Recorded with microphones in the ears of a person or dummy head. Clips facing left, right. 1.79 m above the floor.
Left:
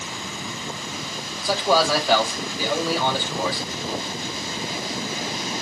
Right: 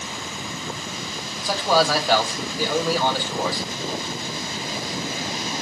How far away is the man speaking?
About 1.7 m.